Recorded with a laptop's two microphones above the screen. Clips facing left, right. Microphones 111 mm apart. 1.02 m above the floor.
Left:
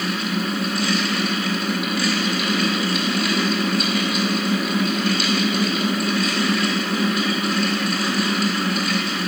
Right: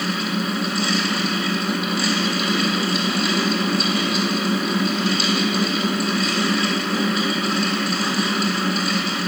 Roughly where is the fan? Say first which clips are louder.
Even; right.